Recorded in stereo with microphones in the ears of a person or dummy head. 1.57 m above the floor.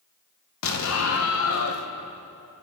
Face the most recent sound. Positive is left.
turn(degrees=85)